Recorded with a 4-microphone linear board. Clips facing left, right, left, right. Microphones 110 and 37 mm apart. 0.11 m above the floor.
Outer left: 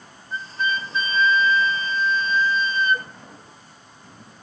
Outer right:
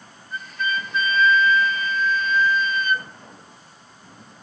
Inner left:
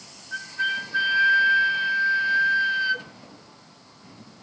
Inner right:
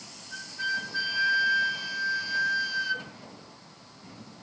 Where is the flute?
30° left (ahead or behind), 0.9 m.